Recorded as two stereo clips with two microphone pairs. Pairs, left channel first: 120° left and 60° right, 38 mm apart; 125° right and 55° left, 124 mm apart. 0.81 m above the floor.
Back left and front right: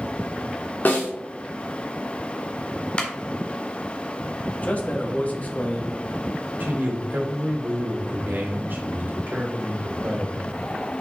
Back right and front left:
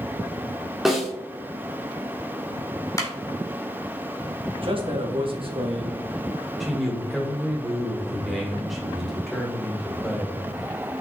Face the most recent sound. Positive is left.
turn(degrees=-35)